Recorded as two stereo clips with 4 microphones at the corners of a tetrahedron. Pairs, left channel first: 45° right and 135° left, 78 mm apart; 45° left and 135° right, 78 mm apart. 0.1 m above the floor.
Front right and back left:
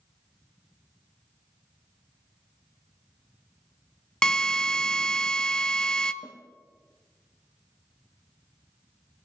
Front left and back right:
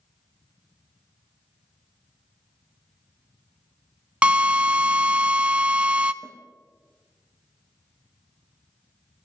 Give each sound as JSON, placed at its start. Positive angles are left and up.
{"t": 4.2, "sound": "a drill", "azimuth_deg": -105, "distance_m": 0.5}
{"t": 6.2, "sound": "a snare drum", "azimuth_deg": -30, "distance_m": 4.0}